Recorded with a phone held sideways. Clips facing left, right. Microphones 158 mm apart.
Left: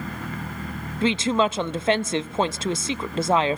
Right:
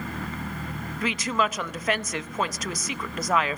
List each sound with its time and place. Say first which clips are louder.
1.0 s a woman speaking: left 6 dB; 30° left (ahead or behind), 0.5 m